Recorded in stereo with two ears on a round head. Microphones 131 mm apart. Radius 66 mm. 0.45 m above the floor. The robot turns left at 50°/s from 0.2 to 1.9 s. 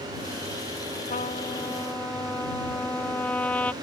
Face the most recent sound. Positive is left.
turn(degrees=10)